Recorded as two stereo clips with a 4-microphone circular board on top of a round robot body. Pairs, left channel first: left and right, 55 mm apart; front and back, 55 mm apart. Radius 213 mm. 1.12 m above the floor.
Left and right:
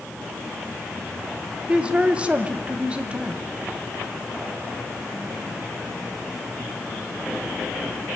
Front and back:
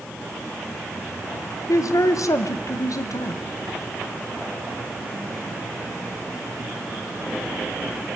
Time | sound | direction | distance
1.7 | a man speaking | 20° right | 1.4 m